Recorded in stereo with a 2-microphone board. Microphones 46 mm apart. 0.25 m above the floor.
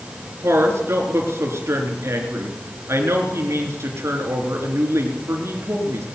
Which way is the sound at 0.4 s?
70° right (ahead or behind).